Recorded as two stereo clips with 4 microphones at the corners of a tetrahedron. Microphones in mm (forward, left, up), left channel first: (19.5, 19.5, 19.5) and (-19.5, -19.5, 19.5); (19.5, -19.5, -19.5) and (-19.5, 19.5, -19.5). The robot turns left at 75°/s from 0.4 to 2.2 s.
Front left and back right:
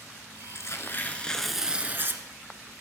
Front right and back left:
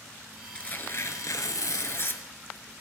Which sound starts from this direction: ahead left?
Tearing paper, at 0.6 s.